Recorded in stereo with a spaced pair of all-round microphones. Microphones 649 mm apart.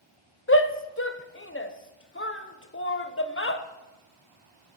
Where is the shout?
20° left (ahead or behind), 0.8 m.